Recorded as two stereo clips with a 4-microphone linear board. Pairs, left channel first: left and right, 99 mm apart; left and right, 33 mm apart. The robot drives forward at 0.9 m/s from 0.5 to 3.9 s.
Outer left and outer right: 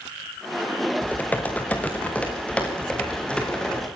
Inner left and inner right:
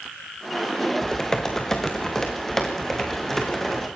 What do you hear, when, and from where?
1.0 s typing on a keyboard: 15° left (ahead or behind), 3 m; by 3.9 s 10° left (ahead or behind), 5.5 m